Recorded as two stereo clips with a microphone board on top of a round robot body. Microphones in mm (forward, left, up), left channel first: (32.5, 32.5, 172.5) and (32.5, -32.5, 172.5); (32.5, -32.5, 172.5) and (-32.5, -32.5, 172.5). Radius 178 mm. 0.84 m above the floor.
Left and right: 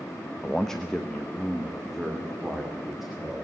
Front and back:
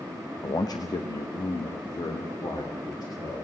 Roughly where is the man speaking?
Ahead.